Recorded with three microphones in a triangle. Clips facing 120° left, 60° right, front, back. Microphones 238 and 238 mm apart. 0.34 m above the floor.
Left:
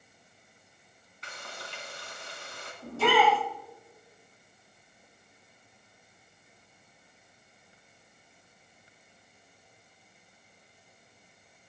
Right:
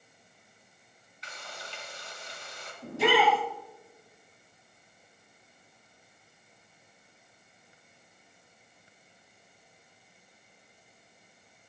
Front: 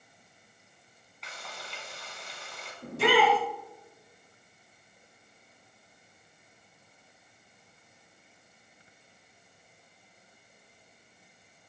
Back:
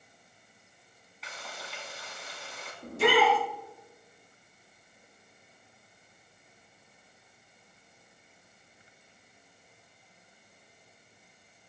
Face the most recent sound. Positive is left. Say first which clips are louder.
# even, even
turn(degrees=10)